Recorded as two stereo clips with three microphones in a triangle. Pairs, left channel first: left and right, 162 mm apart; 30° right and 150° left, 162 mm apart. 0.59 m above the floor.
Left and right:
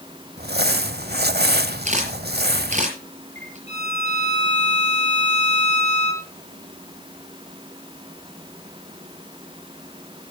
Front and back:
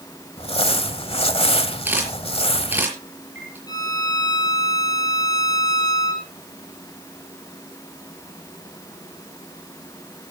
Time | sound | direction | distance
0.4 | crumpling | 85° right | 1.0 m
1.9 | a camera shutter | 130° right | 5.5 m
3.7 | a violin | 95° right | 7 m